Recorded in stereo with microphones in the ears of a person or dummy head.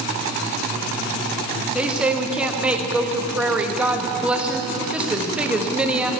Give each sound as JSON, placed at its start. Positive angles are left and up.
{"t": 1.8, "sound": "a woman speaking", "side_deg": -5, "distance_m": 1.4}